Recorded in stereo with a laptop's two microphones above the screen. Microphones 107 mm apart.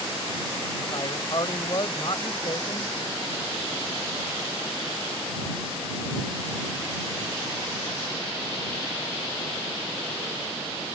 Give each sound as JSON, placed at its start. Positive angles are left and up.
{"t": 0.9, "sound": "a man speaking", "side_deg": 50}